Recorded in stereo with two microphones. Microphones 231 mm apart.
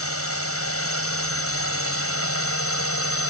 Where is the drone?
75° left (ahead or behind).